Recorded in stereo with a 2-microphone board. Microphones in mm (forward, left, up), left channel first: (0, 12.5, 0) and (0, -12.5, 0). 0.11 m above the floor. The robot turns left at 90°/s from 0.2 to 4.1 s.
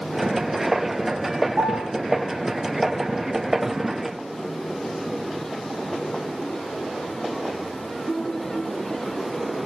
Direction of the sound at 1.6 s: 85° right.